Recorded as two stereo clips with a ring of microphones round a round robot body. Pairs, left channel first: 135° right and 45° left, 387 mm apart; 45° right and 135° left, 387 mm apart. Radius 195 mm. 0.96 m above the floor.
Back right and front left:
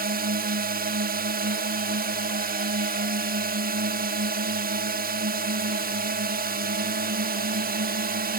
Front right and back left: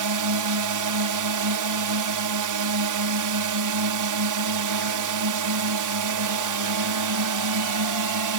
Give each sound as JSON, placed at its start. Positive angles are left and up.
{"t": 0.0, "sound": "a drone", "azimuth_deg": 110}